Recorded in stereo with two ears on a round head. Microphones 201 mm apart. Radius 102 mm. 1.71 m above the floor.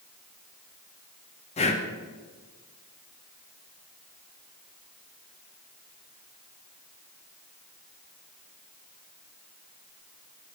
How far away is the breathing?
About 0.6 m.